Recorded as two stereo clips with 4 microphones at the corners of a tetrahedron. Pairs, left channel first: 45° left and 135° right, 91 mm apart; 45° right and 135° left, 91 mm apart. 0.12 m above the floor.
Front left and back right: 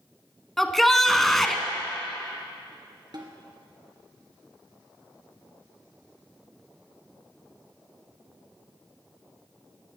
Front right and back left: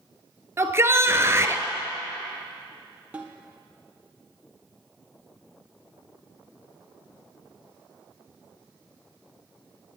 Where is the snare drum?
155° right, 2 m.